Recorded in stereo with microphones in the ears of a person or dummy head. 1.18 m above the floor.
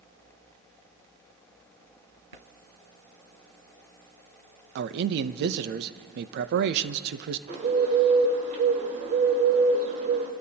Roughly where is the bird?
Right.